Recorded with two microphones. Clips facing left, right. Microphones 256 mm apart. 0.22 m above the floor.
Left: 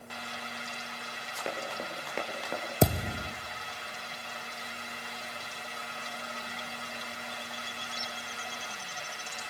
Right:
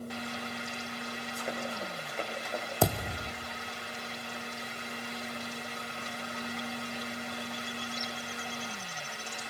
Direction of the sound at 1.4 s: 85° left.